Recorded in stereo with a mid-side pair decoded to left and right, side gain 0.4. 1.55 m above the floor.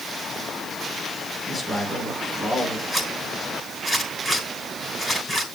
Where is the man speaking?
25° left, 4.5 m.